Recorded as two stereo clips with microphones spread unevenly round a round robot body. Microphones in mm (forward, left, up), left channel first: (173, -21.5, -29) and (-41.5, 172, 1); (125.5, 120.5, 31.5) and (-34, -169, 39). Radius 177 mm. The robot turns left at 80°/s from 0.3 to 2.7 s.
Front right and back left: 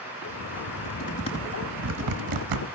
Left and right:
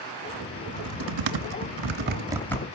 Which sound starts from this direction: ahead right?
Typing on a keyboard, at 0.7 s.